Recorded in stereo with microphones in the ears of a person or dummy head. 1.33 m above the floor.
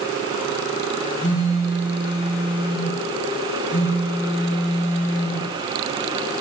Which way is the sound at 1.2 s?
15° left (ahead or behind).